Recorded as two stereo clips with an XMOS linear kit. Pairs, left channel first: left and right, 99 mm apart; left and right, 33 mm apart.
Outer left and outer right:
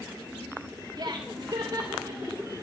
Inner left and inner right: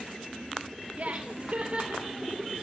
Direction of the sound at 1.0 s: 45° right (ahead or behind).